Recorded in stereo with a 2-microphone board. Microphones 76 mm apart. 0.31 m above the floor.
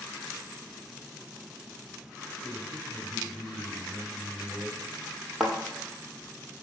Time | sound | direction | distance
2.4 | a man speaking | 5° left (ahead or behind) | 1.1 m
5.4 | a thud | 5° right (ahead or behind) | 1.5 m